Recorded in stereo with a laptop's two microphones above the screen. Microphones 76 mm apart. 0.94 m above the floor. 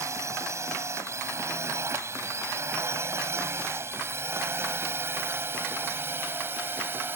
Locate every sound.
0.0 s a drone: 40° right (ahead or behind); by 7.2 s 30° right (ahead or behind)